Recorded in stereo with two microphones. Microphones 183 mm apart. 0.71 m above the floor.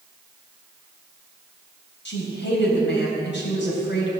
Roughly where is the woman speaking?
Left.